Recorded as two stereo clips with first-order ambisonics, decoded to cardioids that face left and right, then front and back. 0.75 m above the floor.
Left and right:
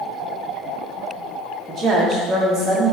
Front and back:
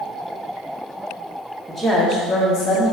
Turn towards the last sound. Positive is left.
turn(degrees=-10)